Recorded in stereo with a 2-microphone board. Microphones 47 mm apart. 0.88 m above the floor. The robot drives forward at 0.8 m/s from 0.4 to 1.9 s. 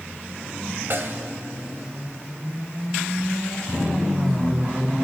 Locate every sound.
0.9 s a snare drum: 50° right (ahead or behind), 1.6 m; by 1.2 s 45° right (ahead or behind), 1.8 m